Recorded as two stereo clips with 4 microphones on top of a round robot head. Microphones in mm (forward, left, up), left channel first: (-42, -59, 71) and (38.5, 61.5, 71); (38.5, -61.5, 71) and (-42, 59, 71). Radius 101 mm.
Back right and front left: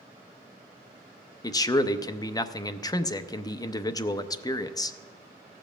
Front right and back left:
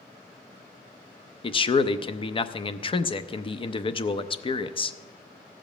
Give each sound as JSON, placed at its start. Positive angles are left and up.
{"t": 1.4, "sound": "a man speaking", "azimuth_deg": -80, "distance_m": 0.7}